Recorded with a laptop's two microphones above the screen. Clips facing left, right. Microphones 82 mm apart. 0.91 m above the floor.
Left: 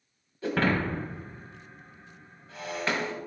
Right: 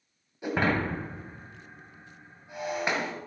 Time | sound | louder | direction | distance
0.4 | breaking glass | even | 15° right (ahead or behind) | 1.5 m